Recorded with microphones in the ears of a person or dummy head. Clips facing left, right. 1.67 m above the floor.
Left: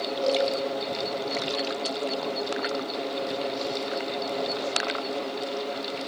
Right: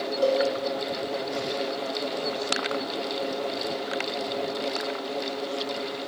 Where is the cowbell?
70° right (ahead or behind), 6.5 m.